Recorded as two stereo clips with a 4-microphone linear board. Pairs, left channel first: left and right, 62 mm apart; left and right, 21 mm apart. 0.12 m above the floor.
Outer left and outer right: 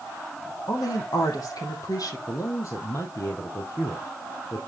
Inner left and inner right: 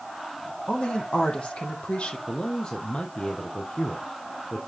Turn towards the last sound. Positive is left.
turn(degrees=60)  # may be behind; listen again after turning